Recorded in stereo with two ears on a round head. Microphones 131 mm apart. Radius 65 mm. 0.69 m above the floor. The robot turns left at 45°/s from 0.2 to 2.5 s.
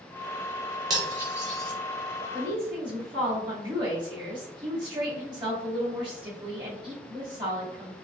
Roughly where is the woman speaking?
Right.